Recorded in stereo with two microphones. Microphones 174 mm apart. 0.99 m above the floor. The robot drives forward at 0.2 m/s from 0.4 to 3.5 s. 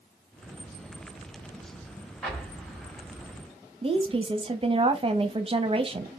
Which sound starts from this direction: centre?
An explosion, at 2.2 s.